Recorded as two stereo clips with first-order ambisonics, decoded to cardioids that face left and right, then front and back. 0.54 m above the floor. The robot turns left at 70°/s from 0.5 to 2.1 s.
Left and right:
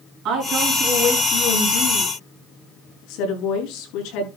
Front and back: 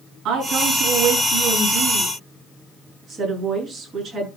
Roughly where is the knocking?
No knocking in this recording.